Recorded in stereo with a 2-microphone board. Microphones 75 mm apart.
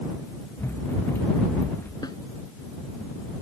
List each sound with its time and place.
0.6 s running footsteps: 30° left (ahead or behind)
2.0 s a snare drum: 65° left (ahead or behind)